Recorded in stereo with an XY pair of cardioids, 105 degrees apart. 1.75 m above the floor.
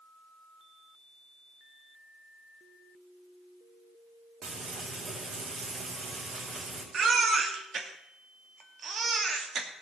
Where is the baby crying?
50° right, 2.5 m.